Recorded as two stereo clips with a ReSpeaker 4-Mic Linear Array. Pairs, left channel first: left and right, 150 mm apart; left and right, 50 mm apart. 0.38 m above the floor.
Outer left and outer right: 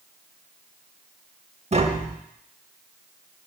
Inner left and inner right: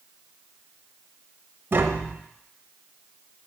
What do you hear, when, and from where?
1.7 s tapping: 45° right (ahead or behind), 0.5 m